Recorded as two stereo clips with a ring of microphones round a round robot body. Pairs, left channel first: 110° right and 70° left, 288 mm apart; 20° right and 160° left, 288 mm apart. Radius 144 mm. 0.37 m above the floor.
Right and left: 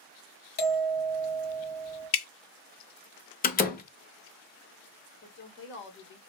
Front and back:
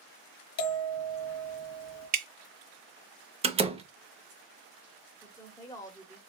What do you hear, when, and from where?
0.6 s a bell: 55° right, 1.4 m
2.1 s dripping: 145° right, 0.8 m
3.4 s a door slam: 145° right, 0.7 m
5.2 s a woman speaking: 95° right, 1.1 m